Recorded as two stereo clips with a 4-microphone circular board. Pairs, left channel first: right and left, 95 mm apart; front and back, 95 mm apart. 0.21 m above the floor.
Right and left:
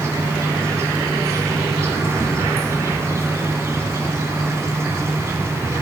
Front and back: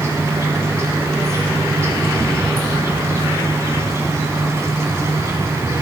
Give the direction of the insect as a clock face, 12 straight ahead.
8 o'clock.